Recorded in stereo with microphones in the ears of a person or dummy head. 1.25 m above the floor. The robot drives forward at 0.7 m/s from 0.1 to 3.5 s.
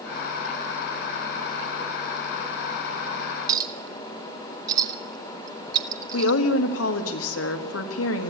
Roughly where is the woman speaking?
Left.